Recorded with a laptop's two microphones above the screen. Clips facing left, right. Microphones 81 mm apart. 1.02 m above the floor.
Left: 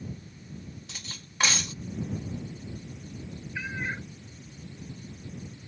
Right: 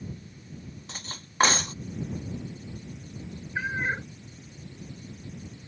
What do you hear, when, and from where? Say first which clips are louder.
0.9 s cutlery clinking: right 3 dB; 40° right (ahead or behind)
3.5 s a cat meowing: right 5 dB; 40° right (ahead or behind)